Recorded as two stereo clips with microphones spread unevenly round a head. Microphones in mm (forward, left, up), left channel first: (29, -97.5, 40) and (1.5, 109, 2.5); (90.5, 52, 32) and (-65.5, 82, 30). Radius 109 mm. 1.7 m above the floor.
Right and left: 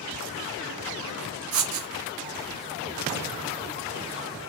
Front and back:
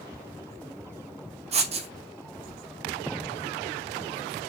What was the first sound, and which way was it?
Writing, 125° left.